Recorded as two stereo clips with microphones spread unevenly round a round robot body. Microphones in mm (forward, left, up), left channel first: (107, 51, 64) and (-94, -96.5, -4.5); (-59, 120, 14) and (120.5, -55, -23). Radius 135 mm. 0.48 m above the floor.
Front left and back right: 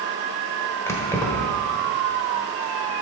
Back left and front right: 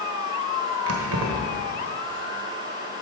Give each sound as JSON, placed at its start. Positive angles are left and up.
{"t": 0.9, "sound": "keys jangling", "azimuth_deg": -50, "distance_m": 1.2}